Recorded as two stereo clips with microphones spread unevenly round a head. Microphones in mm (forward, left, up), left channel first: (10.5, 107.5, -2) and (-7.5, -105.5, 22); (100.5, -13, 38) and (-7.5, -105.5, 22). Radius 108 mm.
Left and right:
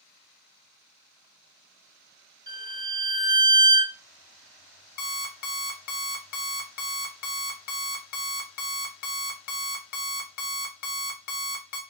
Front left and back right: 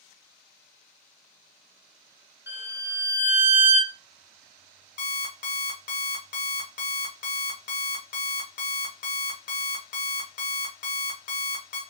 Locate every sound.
2.5 s a violin: 60° right, 1.2 m
5.0 s an alarm clock: 40° left, 0.7 m